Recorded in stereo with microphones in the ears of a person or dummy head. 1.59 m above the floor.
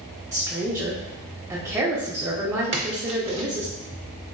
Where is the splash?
25° right (ahead or behind), 0.5 m.